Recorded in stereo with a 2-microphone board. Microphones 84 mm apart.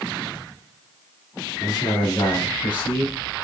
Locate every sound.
1.6 s a man speaking: 40° left (ahead or behind), 2 m; by 3.2 s 60° left (ahead or behind), 3 m